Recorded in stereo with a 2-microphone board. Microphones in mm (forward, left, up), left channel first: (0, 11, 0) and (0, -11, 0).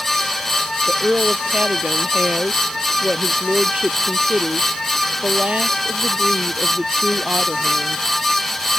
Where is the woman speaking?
70° right (ahead or behind); by 8.1 s 60° right (ahead or behind).